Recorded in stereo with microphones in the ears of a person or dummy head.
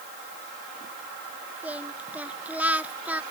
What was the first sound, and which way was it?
Singing, 10° right (ahead or behind).